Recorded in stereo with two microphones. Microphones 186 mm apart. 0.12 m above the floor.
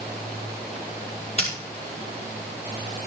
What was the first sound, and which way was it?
Scissors, 40° left (ahead or behind).